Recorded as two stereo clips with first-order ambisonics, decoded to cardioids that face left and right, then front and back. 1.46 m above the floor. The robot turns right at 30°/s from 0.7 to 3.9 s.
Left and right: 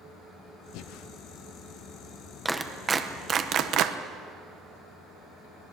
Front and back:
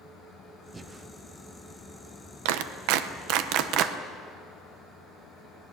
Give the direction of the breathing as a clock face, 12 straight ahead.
8 o'clock.